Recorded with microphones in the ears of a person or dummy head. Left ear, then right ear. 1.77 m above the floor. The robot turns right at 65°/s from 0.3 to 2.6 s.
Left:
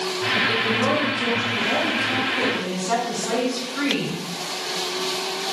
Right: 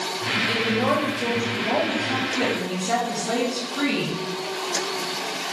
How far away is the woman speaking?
About 2.5 m.